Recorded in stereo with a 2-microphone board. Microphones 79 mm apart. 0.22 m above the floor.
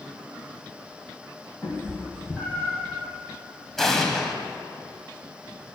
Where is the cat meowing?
15° left (ahead or behind), 3 m; by 2.9 s 10° left (ahead or behind), 2 m.